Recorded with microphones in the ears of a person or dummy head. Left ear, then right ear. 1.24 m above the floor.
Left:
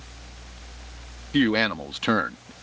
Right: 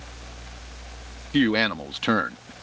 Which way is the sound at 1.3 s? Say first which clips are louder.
Even; 10° left (ahead or behind).